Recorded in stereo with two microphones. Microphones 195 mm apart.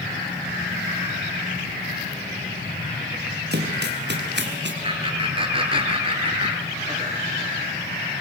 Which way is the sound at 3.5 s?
60° right (ahead or behind).